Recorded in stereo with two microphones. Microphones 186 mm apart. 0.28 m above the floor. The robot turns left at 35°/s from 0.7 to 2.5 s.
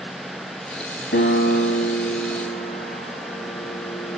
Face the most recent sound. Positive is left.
turn(degrees=40)  # may be behind; listen again after turning